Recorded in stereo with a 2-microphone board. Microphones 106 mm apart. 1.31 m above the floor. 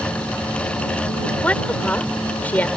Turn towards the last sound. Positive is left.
turn(degrees=15)  # may be behind; listen again after turning